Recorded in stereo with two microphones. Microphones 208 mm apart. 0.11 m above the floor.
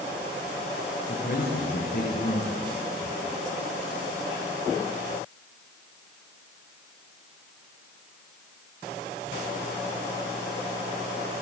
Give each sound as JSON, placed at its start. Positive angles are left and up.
{"t": 1.1, "sound": "a man speaking", "side_deg": 50, "distance_m": 7.5}